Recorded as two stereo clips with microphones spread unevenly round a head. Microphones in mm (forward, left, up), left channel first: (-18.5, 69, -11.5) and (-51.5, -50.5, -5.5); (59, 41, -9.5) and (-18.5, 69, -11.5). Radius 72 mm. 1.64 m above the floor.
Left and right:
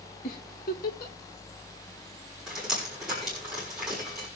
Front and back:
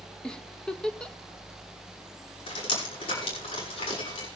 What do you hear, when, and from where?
0.2 s a giggle: 60° left, 1.5 m
2.5 s dripping: 20° right, 6 m